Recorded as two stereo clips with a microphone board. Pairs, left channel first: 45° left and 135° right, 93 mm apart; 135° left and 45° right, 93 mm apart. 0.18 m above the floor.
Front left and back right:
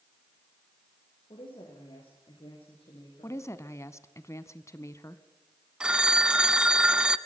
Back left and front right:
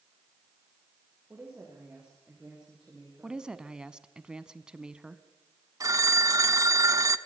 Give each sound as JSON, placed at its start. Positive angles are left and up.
{"t": 1.3, "sound": "a woman speaking", "azimuth_deg": 30, "distance_m": 8.0}
{"t": 3.2, "sound": "a woman speaking", "azimuth_deg": 30, "distance_m": 1.1}
{"t": 5.8, "sound": "a phone ringing", "azimuth_deg": -60, "distance_m": 0.7}